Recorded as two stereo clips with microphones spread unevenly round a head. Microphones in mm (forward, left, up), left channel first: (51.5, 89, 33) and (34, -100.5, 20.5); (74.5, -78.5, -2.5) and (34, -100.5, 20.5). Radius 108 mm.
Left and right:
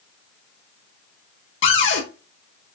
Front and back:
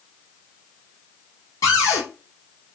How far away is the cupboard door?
About 1.3 m.